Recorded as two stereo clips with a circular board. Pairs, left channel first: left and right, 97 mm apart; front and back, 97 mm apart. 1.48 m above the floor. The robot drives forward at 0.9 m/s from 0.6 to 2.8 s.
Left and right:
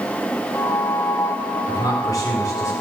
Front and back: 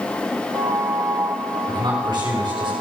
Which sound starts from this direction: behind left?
A man speaking, at 1.7 s.